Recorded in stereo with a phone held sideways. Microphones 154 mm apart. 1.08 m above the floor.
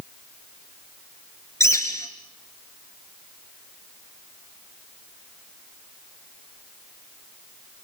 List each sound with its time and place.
1.6 s a bird: 20° left (ahead or behind), 3 m